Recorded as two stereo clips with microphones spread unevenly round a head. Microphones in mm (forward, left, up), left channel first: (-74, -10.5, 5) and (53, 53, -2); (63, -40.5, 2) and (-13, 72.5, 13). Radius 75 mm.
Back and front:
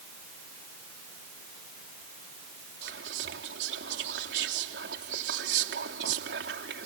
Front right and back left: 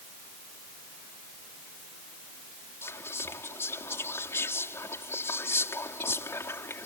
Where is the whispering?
15° left.